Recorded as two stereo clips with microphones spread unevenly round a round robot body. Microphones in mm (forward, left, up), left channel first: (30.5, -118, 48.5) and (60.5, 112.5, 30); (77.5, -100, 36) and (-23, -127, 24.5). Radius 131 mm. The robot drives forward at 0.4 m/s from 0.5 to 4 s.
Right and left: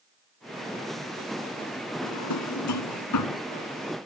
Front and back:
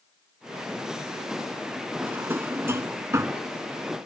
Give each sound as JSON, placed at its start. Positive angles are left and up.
{"t": 2.0, "sound": "a drawer", "azimuth_deg": -95}